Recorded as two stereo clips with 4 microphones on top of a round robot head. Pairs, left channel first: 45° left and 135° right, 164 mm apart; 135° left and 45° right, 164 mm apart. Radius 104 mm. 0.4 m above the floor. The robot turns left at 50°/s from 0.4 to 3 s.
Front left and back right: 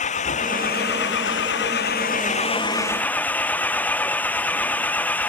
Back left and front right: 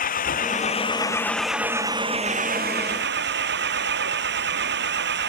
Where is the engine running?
95° left; by 5.3 s 35° right.